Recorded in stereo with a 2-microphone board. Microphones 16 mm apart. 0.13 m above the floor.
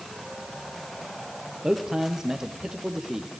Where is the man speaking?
40° right (ahead or behind), 3 m.